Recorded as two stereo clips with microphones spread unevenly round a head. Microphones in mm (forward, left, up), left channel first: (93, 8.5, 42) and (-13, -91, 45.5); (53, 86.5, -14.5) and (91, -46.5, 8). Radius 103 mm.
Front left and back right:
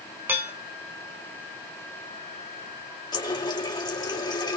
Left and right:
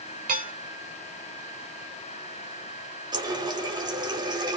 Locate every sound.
0.3 s dishes clattering: 60° right, 4 m
3.1 s a running tap: 20° right, 1.9 m